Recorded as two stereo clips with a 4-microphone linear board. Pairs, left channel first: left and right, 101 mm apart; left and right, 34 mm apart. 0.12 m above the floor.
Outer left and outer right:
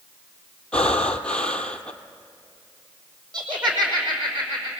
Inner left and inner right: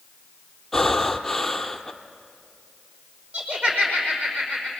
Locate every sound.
0.7 s breathing: 10° left (ahead or behind), 1.0 m
3.3 s laughter: 50° right (ahead or behind), 5.5 m